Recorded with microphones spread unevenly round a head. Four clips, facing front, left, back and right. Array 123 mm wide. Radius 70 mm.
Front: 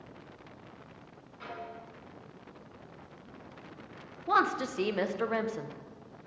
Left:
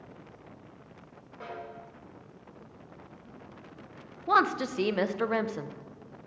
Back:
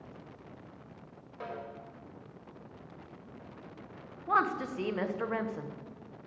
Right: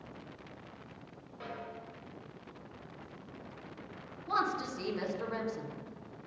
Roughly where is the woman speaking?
Ahead left.